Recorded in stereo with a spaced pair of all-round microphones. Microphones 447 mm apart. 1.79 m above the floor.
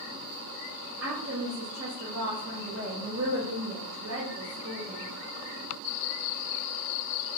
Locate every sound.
1.0 s a woman speaking: 35° right (ahead or behind), 0.6 m